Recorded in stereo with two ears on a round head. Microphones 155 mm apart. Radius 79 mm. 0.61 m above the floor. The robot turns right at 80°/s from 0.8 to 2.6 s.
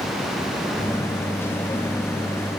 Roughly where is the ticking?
I don't hear ticking.